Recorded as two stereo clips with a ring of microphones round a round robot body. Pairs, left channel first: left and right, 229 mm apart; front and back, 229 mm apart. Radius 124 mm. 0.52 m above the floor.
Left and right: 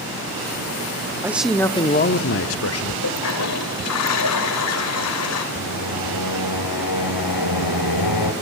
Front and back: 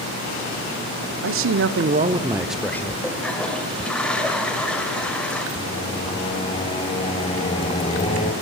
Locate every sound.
1.2 s a man speaking: 170° right, 1.4 m; by 2.9 s 80° left, 1.8 m
3.0 s a toilet flushing: 85° left, 2 m
5.5 s singing: 70° left, 1.5 m